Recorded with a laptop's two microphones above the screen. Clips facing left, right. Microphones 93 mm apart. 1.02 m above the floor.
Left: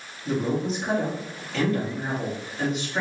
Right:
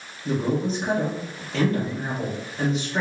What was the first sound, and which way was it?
A man speaking, 30° right (ahead or behind).